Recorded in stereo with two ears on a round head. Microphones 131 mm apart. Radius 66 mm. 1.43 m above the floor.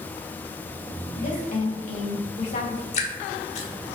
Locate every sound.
1.2 s a woman speaking: 60° left (ahead or behind), 3 m
2.9 s dripping: 45° left (ahead or behind), 1.8 m